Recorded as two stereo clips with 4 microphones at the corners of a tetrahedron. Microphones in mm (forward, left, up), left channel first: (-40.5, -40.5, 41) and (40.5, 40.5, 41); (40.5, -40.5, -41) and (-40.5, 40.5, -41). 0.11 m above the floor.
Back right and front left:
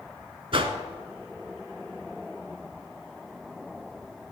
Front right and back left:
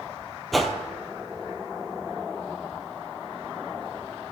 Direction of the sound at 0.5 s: 45° left.